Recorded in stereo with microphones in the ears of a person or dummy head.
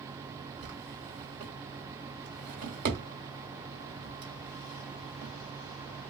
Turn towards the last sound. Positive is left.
turn(degrees=-40)  # may be behind; listen again after turning